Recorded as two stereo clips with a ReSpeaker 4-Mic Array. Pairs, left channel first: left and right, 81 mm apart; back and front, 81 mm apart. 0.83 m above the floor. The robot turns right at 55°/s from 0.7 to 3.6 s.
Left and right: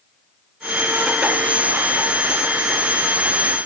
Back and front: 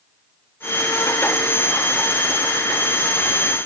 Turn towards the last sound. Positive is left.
No sound to turn to.